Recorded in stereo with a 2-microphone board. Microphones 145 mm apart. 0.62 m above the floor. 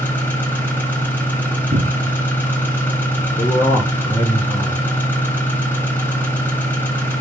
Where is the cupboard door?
65° right (ahead or behind), 0.8 m.